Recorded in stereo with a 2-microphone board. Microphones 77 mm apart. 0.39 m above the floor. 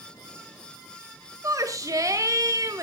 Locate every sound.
1.4 s a shout: 50° right (ahead or behind), 1.6 m